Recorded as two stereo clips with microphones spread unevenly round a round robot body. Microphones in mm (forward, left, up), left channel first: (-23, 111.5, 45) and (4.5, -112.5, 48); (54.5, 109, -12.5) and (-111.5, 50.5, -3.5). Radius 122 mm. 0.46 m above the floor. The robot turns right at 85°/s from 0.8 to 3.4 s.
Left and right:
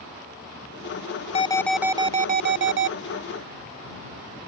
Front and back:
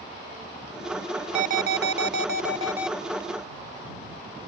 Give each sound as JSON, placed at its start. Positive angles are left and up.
{"t": 1.4, "sound": "an alarm", "azimuth_deg": 155}